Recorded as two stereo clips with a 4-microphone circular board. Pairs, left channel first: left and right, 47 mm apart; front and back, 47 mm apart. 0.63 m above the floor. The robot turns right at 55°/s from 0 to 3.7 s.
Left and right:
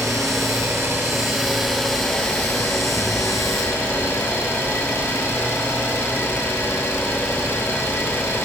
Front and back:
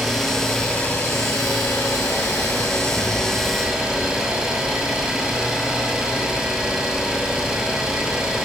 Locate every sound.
0.0 s an engine running: 100° right, 7.5 m; by 8.5 s 105° left, 7.5 m